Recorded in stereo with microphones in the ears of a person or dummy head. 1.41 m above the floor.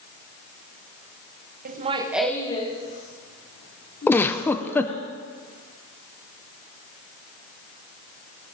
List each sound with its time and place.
1.6 s laughter: 50° right (ahead or behind), 1.1 m; by 5.1 s 65° left (ahead or behind), 5 m
4.1 s a giggle: 10° left (ahead or behind), 0.5 m